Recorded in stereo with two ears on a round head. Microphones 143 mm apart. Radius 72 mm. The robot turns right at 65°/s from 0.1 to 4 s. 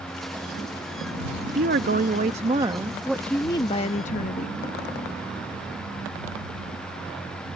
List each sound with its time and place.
1.5 s a woman speaking: 110° right; by 4.6 s 55° left